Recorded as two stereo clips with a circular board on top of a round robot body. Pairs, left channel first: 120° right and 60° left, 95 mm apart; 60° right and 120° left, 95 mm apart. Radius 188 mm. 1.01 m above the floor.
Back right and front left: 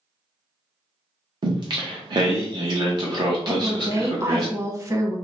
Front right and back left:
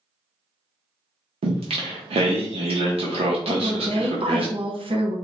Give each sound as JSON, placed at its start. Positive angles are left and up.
{"t": 1.4, "sound": "singing", "azimuth_deg": 105, "distance_m": 0.6}
{"t": 3.5, "sound": "a woman speaking", "azimuth_deg": 115, "distance_m": 1.2}